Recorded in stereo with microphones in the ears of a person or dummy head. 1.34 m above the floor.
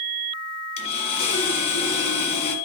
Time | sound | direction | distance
0.8 | sawing | 30° left (ahead or behind) | 1.5 m